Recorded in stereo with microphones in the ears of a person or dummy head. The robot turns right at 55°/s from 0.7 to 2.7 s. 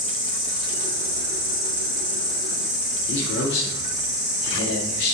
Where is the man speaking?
50° left (ahead or behind), 0.5 m.